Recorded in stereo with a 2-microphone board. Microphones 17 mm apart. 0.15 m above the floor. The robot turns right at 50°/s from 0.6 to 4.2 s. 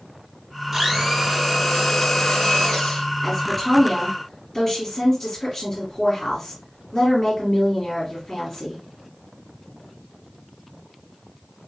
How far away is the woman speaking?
About 1.7 m.